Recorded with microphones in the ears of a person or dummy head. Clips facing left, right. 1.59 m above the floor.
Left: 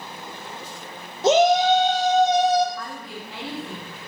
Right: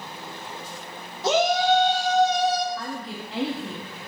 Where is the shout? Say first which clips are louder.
Left 4 dB; 20° left (ahead or behind), 0.7 m.